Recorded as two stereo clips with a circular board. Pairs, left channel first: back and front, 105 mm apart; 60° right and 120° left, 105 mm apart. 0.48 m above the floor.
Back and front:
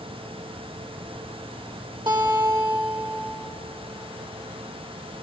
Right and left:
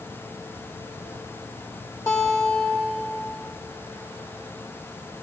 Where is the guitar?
10° right, 1.9 m.